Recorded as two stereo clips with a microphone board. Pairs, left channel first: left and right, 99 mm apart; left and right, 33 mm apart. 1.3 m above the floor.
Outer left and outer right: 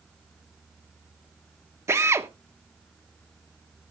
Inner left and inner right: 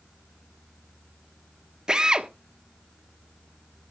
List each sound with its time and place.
1.9 s a drill: 25° right (ahead or behind), 1.1 m